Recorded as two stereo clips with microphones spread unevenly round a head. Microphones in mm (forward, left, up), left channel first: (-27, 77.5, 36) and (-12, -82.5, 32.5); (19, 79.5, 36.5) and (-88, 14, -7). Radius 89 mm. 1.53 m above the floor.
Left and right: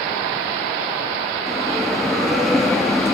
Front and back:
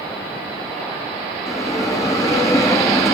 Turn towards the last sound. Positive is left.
turn(degrees=10)